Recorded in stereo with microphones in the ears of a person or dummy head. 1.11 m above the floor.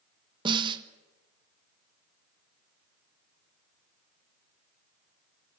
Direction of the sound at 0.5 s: 20° right (ahead or behind).